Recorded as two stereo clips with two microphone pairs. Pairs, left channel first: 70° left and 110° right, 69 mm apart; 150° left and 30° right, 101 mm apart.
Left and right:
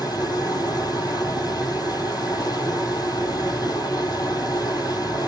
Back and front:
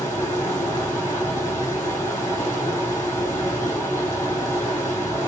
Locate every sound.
0.0 s running water: 85° left, 1.6 m